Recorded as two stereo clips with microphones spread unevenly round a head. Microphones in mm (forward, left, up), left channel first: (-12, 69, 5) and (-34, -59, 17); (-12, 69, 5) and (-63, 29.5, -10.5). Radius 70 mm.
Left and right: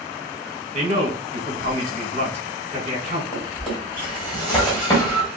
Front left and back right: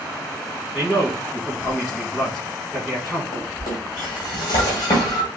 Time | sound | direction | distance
0.7 | a man speaking | 55° right | 1.5 m
3.3 | a drawer | 5° right | 2.0 m